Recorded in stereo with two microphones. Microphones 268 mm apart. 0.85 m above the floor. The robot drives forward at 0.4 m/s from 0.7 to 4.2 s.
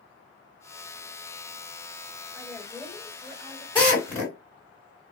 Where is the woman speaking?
5° left (ahead or behind), 1.4 m; by 3.6 s centre (ahead or behind), 1.9 m.